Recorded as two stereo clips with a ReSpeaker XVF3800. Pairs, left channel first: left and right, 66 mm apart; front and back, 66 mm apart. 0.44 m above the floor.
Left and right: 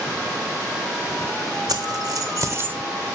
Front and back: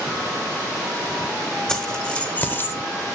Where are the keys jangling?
80° right, 1.7 m; by 2.8 s 35° right, 0.8 m.